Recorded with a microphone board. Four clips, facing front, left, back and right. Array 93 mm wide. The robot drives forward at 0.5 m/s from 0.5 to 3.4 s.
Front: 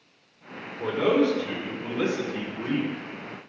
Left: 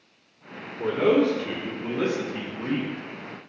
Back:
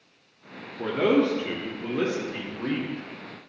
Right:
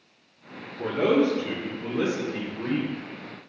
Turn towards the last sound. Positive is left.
turn(degrees=-170)